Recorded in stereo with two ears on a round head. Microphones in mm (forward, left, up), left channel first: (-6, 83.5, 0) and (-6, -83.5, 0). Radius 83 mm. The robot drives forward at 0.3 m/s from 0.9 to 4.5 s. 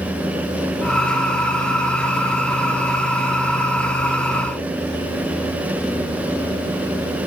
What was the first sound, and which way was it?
Only background noise.